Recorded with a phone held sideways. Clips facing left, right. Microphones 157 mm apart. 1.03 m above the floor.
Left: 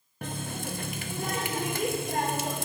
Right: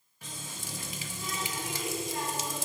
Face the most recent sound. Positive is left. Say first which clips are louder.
# left 10 dB
turn(degrees=55)  # may be behind; listen again after turning